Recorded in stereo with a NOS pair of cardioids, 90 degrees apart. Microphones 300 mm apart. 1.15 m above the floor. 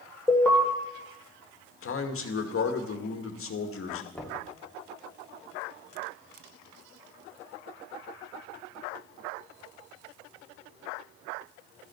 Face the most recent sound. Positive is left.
turn(degrees=5)